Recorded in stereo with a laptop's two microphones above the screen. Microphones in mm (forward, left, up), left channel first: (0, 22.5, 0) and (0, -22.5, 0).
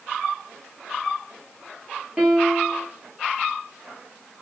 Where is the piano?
20° right (ahead or behind), 2.5 m.